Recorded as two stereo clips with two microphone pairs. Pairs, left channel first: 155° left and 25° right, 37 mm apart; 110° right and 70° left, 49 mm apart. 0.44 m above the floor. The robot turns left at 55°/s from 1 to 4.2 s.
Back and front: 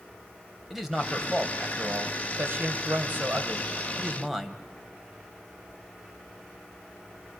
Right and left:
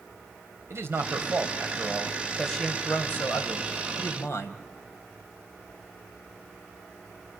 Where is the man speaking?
60° left, 2.5 m; by 4.6 s 115° right, 2.5 m.